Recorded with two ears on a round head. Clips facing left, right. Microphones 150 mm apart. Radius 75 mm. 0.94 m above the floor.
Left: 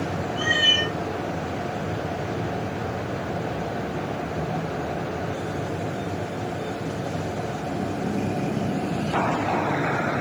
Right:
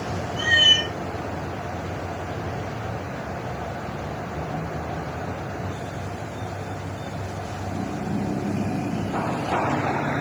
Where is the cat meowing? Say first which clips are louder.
Left 1 dB; 20° right (ahead or behind), 0.8 m.